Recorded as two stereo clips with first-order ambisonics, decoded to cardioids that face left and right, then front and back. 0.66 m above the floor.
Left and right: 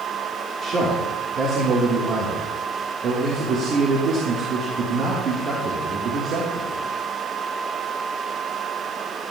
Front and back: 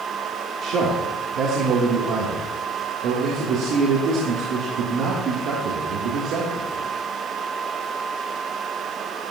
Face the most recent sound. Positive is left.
turn(degrees=-145)